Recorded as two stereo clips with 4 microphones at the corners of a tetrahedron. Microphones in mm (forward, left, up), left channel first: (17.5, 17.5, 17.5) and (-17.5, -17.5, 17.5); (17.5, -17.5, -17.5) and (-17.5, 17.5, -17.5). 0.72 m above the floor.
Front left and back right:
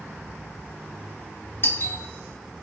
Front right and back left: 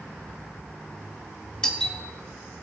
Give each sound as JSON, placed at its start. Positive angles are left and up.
{"t": 1.6, "sound": "a doorbell", "azimuth_deg": 25, "distance_m": 1.8}